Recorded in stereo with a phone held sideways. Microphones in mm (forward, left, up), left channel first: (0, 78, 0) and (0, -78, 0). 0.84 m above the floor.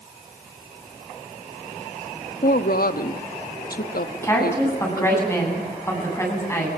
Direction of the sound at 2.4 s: 70° left (ahead or behind).